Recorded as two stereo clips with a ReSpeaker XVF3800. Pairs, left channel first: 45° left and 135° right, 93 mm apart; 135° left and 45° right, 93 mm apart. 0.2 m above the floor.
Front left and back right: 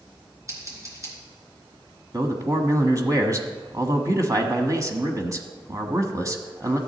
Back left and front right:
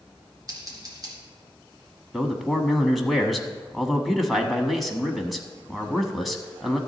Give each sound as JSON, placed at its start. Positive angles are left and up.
{"t": 0.5, "sound": "scissors", "azimuth_deg": -85, "distance_m": 3.0}
{"t": 2.1, "sound": "a man speaking", "azimuth_deg": -135, "distance_m": 1.2}